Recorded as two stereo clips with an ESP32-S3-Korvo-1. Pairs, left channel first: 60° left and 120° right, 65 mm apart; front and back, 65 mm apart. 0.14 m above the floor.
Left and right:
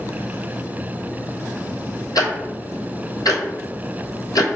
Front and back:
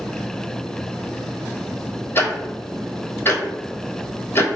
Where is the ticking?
55° left, 0.8 m.